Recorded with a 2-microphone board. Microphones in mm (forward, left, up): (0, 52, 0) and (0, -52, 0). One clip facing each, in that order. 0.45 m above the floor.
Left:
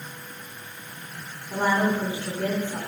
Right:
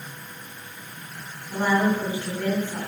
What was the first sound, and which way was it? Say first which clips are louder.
A woman speaking: right 1 dB; 15° left (ahead or behind).